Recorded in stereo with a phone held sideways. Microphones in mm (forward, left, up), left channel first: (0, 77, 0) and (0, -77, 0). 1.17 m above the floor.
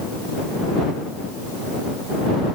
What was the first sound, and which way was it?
Only background noise.